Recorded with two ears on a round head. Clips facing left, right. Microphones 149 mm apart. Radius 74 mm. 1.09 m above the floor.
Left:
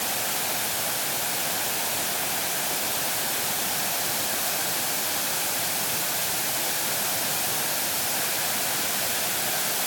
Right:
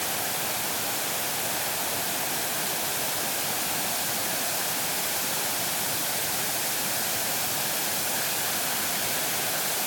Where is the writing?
No writing in this recording.